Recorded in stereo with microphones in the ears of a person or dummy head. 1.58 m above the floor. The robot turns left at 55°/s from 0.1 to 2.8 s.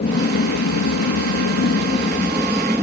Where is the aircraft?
135° left; by 2.8 s 10° right.